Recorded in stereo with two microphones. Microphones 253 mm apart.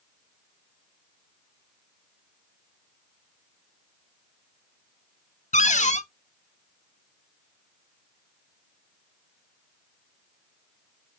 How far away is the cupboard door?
About 0.5 m.